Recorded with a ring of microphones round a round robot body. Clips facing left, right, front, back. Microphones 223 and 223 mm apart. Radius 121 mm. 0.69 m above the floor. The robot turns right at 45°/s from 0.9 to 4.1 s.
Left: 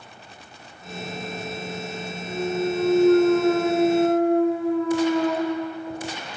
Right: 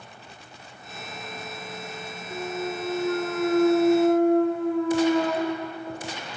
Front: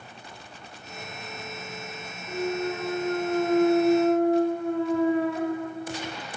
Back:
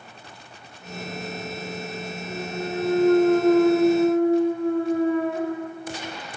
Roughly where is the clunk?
Left.